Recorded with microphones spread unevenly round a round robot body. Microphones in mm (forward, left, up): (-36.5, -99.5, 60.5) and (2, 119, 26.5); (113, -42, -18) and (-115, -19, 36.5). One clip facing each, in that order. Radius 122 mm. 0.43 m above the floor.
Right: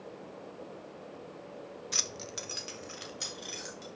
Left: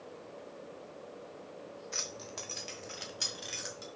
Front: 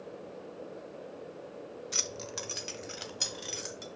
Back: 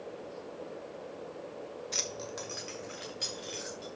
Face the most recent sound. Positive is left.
turn(degrees=0)